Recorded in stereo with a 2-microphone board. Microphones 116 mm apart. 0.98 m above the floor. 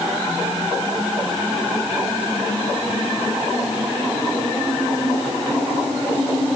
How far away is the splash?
No splash in this recording.